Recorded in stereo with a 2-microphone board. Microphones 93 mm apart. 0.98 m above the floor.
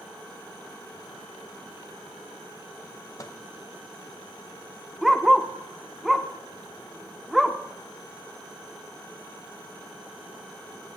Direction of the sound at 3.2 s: 35° left (ahead or behind).